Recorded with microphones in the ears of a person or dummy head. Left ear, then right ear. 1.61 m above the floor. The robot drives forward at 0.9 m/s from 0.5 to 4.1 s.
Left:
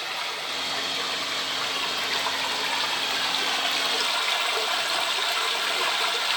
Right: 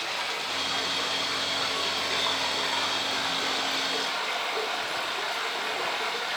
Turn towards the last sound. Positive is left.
turn(degrees=35)  # may be behind; listen again after turning